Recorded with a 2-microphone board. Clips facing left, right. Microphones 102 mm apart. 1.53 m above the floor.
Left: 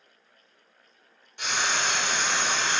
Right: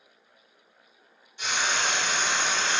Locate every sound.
1.4 s frying: 65° left (ahead or behind), 1.0 m